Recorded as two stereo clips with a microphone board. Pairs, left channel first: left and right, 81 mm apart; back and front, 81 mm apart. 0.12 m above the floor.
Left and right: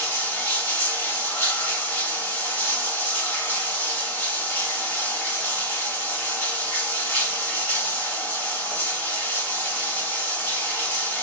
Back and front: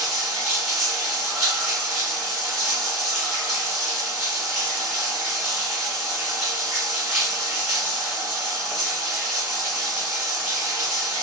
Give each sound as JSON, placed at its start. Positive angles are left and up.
{"t": 0.0, "sound": "running water", "azimuth_deg": 85, "distance_m": 1.4}